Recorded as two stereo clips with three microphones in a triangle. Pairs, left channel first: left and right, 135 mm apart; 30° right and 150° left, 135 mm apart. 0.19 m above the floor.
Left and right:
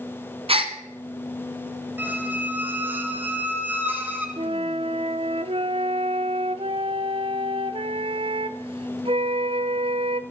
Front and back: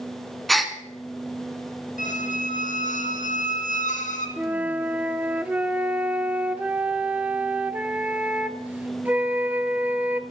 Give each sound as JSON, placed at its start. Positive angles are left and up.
{"t": 0.5, "sound": "a gasp", "azimuth_deg": -120, "distance_m": 0.9}
{"t": 2.0, "sound": "a squeak", "azimuth_deg": -15, "distance_m": 1.3}
{"t": 4.4, "sound": "a flute", "azimuth_deg": -130, "distance_m": 0.6}